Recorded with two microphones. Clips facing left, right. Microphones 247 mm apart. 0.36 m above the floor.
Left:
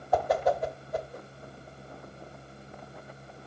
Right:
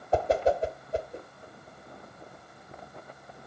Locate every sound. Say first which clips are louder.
0.1 s a whoosh: right 1 dB; 30° right (ahead or behind), 1.0 m